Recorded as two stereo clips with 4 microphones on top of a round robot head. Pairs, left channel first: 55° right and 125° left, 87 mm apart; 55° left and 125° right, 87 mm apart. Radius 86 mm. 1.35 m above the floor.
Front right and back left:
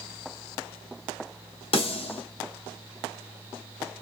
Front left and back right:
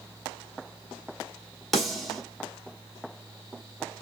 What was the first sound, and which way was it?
A snare drum, 35° right.